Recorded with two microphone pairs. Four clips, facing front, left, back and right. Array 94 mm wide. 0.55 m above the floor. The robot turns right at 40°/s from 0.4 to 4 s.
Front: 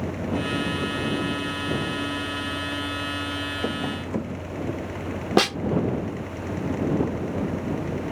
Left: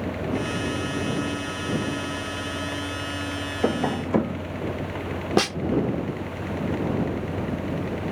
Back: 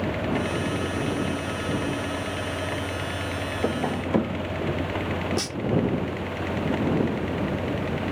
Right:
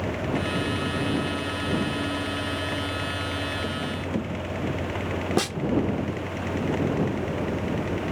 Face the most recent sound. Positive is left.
turn(degrees=15)